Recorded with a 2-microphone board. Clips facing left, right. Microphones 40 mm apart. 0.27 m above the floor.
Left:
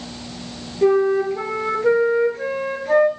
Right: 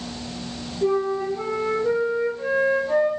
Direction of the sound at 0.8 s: 75° left (ahead or behind).